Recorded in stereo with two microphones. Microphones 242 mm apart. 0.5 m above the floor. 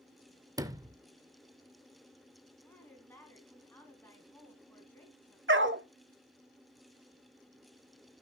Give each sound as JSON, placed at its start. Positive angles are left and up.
{"t": 0.6, "sound": "a sliding door", "side_deg": -15, "distance_m": 0.5}
{"t": 2.6, "sound": "a woman speaking", "side_deg": 5, "distance_m": 4.0}
{"t": 5.5, "sound": "a dog barking", "side_deg": -50, "distance_m": 0.7}